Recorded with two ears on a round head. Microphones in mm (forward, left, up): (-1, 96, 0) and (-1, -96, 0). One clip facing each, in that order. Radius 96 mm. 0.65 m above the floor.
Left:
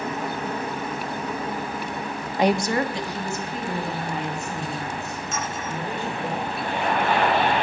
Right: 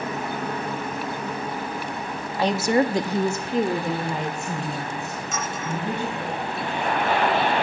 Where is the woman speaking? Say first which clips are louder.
Right 1 dB; 20° left (ahead or behind), 0.5 m; by 6.3 s 65° right (ahead or behind), 4 m.